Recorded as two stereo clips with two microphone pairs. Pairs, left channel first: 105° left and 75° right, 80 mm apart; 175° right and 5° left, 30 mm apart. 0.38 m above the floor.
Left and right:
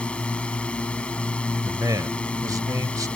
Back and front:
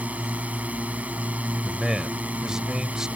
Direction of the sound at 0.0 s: 30° left.